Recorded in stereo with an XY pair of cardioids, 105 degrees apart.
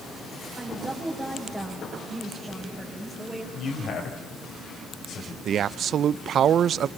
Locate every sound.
0.6 s a woman speaking: straight ahead, 5.5 m
3.5 s a man speaking: 60° left, 7 m
5.5 s a man speaking: 60° right, 0.5 m